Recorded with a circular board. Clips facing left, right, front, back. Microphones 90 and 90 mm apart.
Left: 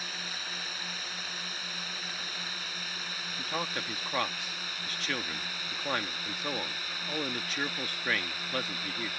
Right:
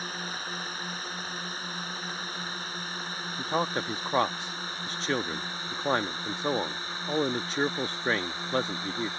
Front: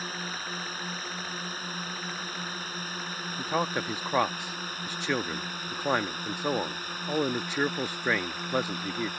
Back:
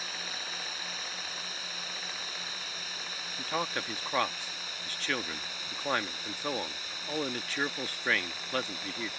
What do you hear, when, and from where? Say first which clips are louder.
0.0 s a drone: right 5 dB, front 5 dB; 40° right; by 9.2 s 30° right
3.4 s a man speaking: right 7 dB, front 5 dB; 60° right